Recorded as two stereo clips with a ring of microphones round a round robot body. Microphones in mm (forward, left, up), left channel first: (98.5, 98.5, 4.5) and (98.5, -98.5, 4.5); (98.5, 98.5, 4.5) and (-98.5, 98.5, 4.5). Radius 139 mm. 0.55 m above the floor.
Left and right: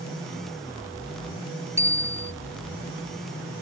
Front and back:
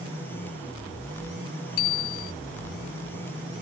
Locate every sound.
1.8 s a bicycle bell: 15° right